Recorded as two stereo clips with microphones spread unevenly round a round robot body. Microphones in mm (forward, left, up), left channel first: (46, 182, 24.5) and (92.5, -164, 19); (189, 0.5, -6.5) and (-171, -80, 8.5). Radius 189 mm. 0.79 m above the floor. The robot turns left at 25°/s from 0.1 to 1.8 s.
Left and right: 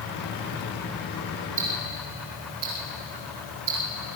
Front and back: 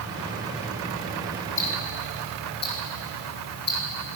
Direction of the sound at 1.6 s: 45° right.